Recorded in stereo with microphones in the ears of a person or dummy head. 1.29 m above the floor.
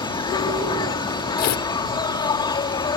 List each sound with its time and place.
0.0 s an insect: 25° left (ahead or behind)
1.4 s tearing paper: 45° left (ahead or behind)